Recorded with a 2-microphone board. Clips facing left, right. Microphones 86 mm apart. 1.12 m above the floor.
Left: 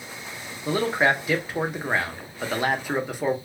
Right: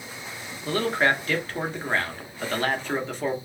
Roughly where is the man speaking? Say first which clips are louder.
Left 1 dB; centre.